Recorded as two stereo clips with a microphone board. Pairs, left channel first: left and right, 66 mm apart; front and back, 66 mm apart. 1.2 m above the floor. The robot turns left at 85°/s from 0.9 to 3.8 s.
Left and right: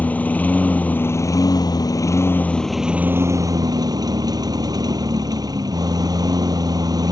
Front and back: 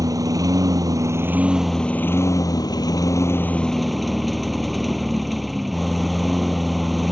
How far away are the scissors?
I don't hear scissors.